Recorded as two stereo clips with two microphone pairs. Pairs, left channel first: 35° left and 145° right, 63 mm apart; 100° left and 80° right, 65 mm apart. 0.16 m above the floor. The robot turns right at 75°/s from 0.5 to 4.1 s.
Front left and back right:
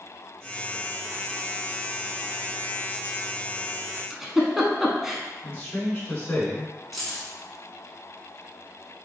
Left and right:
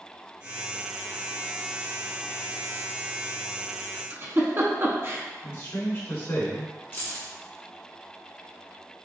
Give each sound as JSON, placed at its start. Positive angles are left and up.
{"t": 4.1, "sound": "a giggle", "azimuth_deg": -60, "distance_m": 0.6}
{"t": 5.4, "sound": "a man speaking", "azimuth_deg": 85, "distance_m": 1.3}
{"t": 6.9, "sound": "keys jangling", "azimuth_deg": 125, "distance_m": 1.2}